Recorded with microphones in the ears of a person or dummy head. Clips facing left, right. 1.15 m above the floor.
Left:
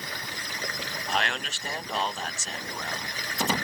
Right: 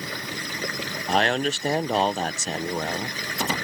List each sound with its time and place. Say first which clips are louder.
0.0 s running water: right 6 dB; 75° right (ahead or behind)
1.1 s a man speaking: right 9 dB; 35° right (ahead or behind)